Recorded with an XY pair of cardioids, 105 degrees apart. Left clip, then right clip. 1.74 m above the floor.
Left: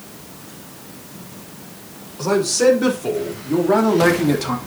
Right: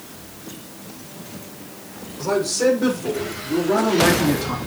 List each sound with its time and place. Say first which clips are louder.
2.2 s a man speaking: left 3 dB; 35° left, 6 m; by 4.6 s 50° left, 2.5 m